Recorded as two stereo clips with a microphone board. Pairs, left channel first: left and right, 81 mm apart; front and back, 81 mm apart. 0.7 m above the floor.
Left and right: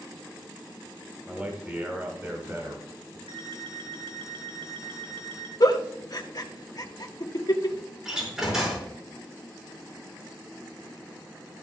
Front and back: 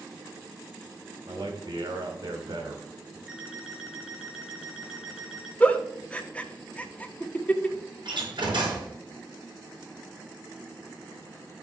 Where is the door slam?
170° right, 5.5 m.